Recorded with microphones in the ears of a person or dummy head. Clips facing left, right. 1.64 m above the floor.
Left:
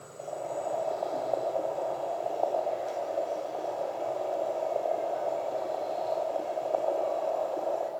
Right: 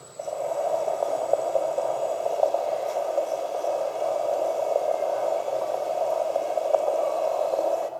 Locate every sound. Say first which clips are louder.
0.2 s boiling: right 7 dB; 65° right (ahead or behind), 5 m